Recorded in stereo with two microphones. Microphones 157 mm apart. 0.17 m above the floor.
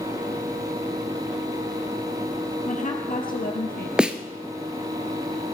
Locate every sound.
2.6 s a woman speaking: 50° left (ahead or behind), 3.5 m; by 3.9 s 70° left (ahead or behind), 4 m
4.0 s a snare drum: 5° right (ahead or behind), 0.9 m